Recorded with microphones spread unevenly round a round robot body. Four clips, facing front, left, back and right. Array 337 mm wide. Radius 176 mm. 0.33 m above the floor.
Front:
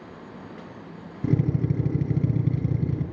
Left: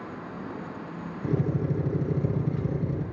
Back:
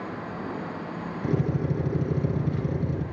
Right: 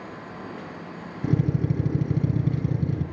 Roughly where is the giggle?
I don't hear a giggle.